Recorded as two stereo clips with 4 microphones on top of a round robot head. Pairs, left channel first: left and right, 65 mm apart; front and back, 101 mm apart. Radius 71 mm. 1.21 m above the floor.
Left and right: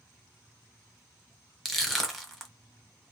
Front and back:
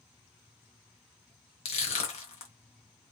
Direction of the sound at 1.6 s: Straight ahead.